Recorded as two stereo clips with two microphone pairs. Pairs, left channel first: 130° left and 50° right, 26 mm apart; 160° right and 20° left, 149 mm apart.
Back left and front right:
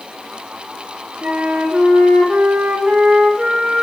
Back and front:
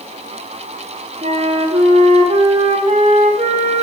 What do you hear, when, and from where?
1.2 s a flute: 25° right, 1.6 m